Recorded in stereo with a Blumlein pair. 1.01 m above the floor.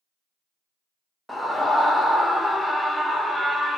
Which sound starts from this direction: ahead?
A scream, at 1.3 s.